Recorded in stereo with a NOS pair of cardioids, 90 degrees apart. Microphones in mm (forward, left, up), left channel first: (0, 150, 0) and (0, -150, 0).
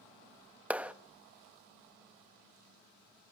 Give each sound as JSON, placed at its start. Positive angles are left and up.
{"t": 0.7, "sound": "a clap", "azimuth_deg": -5, "distance_m": 1.3}